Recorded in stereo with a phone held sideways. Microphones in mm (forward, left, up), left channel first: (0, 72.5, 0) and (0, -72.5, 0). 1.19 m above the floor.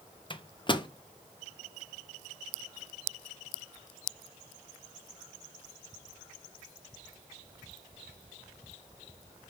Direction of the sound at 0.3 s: 35° left (ahead or behind).